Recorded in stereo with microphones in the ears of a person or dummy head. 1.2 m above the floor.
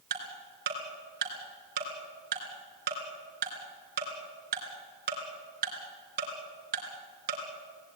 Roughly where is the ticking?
Right.